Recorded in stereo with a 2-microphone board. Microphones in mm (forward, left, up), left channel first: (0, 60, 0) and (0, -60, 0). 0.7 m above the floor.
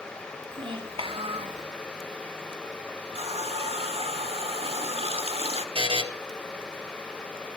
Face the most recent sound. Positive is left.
turn(degrees=-55)  # may be behind; listen again after turning